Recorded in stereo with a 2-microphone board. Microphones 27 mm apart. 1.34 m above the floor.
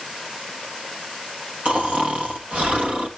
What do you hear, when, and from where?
1.6 s snoring: 55° right (ahead or behind), 2 m